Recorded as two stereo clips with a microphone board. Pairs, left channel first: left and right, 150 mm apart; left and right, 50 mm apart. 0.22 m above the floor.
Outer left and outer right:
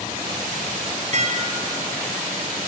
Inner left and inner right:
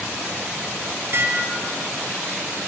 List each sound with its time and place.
1.1 s dishes clattering: 50° right (ahead or behind), 3 m